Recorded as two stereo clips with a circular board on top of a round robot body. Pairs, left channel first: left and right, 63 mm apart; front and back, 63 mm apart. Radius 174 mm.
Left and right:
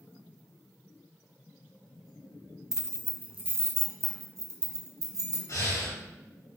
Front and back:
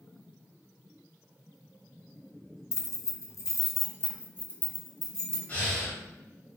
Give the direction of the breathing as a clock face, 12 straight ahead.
10 o'clock.